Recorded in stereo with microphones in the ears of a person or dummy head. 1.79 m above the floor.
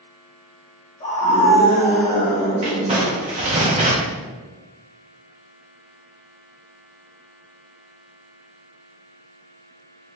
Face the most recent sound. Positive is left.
turn(degrees=-30)  # may be behind; listen again after turning